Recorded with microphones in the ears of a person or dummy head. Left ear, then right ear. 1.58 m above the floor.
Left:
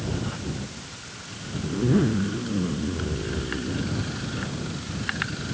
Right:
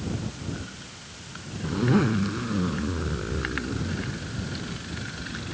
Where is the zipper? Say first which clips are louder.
Even; 50° right (ahead or behind).